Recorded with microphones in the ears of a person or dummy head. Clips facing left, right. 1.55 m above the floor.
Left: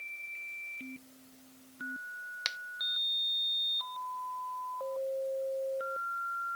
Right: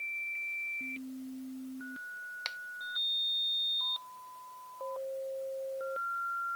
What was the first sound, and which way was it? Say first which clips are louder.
A finger snap: left 1 dB; 15° left (ahead or behind).